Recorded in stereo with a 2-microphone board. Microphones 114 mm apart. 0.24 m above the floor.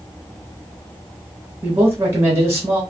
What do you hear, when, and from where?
1.6 s a man speaking: 25° right (ahead or behind), 1.5 m